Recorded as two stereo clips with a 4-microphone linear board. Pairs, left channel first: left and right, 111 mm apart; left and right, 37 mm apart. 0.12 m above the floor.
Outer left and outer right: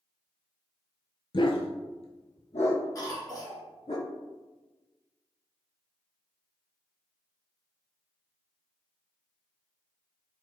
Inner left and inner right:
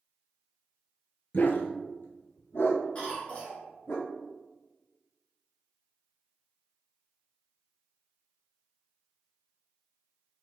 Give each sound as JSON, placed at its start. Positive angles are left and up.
{"t": 1.3, "sound": "a dog barking", "side_deg": 45, "distance_m": 0.6}
{"t": 3.0, "sound": "a cough", "side_deg": 35, "distance_m": 2.0}